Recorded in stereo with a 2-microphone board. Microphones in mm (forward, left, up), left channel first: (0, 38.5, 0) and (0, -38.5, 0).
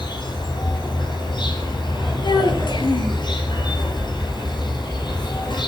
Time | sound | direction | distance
0.0 | an insect | 80° left | 5 m
2.2 | a child speaking | 80° left | 4 m